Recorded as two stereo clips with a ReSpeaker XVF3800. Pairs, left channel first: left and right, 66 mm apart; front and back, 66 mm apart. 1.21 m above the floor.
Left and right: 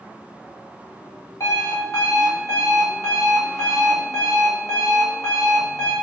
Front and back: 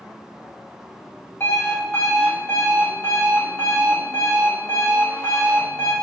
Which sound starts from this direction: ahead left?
An alarm clock, at 1.4 s.